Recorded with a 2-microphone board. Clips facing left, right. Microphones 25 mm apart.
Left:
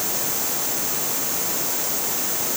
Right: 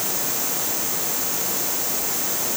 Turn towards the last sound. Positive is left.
No sound to turn to.